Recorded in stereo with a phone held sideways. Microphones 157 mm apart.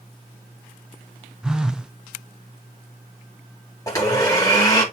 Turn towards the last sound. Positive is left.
turn(degrees=20)  # may be behind; listen again after turning